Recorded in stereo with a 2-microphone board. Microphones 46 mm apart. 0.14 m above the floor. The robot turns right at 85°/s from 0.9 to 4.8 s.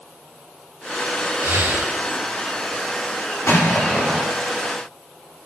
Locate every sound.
1.4 s breathing: 95° right, 5.5 m; by 1.9 s 50° right, 5.5 m
3.5 s an explosion: 125° left, 7 m; by 4.3 s 165° right, 7 m